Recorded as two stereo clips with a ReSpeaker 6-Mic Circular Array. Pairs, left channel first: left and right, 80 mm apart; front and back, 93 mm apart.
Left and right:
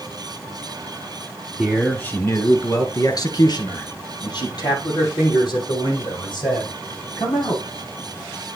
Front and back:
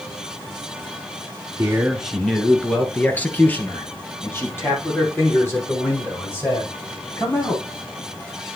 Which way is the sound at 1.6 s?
175° right.